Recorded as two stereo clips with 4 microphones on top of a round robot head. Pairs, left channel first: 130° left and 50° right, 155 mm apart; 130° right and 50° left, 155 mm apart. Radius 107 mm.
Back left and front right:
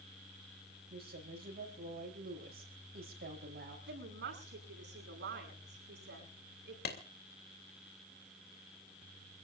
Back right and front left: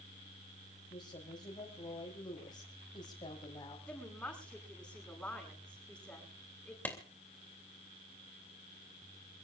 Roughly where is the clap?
Behind left.